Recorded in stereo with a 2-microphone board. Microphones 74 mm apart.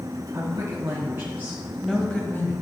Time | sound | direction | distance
0.3 | a woman speaking | 55° right (ahead or behind) | 2 m